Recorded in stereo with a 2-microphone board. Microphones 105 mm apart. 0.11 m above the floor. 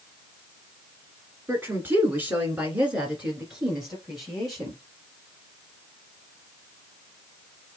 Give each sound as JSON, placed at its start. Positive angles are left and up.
{"t": 1.5, "sound": "a woman speaking", "side_deg": -20, "distance_m": 1.8}